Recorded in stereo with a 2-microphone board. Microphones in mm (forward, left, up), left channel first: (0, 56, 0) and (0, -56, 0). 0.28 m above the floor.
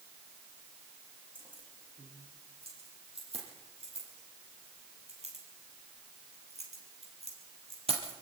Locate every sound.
1.4 s keys jangling: 50° right (ahead or behind), 8.5 m; by 8.1 s 60° right (ahead or behind), 5 m